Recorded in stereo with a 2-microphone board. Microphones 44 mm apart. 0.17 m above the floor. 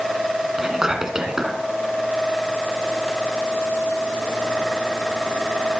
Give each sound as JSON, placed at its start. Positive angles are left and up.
{"t": 0.6, "sound": "whispering", "side_deg": -15, "distance_m": 1.5}